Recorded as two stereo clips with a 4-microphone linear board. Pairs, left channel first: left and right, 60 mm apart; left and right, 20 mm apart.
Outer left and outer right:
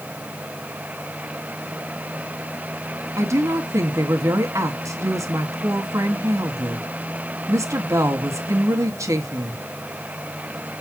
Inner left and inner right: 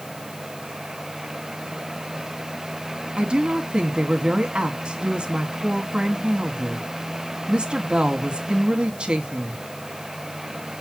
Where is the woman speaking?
60° right (ahead or behind), 1.9 m.